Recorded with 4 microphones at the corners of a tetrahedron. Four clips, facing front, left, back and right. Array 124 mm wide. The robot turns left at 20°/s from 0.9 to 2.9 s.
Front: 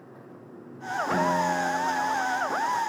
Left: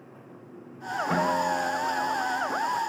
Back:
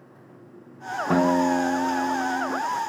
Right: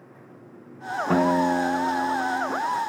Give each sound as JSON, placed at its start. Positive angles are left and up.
{"t": 1.1, "sound": "a guitar", "azimuth_deg": -140, "distance_m": 0.8}